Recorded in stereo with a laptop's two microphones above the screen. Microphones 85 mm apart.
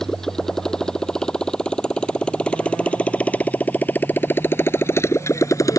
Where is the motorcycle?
5° left (ahead or behind); by 5.8 s 40° left (ahead or behind).